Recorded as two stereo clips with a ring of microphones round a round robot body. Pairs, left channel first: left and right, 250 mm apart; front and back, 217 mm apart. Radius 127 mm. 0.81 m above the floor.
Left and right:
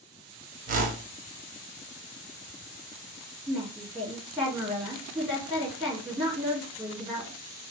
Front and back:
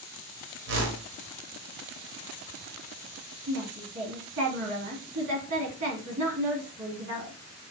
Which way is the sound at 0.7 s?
145° right.